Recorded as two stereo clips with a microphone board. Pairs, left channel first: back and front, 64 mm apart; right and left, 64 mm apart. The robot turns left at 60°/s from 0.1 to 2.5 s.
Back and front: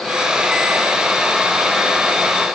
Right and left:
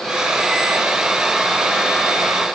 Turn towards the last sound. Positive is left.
No sound to turn to.